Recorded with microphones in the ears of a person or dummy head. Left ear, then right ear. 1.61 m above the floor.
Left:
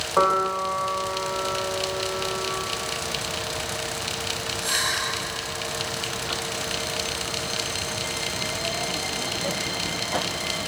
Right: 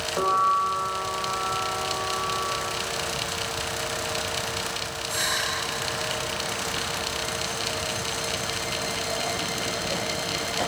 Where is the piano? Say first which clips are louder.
Left 1 dB; 70° left (ahead or behind), 2.5 m.